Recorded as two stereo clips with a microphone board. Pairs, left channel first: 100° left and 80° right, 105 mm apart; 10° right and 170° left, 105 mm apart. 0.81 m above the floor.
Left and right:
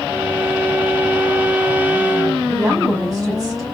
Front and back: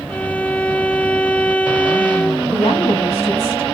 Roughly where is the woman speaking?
Ahead right.